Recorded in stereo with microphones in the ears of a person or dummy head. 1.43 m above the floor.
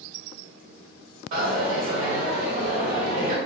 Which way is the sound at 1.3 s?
45° right (ahead or behind).